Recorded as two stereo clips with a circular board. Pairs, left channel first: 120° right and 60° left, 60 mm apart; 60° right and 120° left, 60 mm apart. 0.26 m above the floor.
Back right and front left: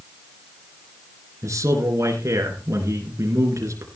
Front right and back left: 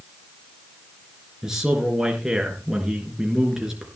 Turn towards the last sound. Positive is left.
turn(degrees=40)